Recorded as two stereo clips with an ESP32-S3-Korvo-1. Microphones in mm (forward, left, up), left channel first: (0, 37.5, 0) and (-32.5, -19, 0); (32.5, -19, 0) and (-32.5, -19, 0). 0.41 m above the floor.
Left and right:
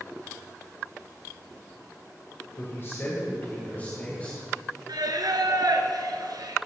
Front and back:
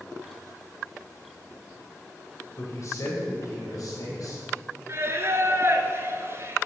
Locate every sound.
2.6 s a man speaking: 25° left, 2 m; by 4.4 s 15° right, 3.5 m
4.9 s singing: 130° right, 1.2 m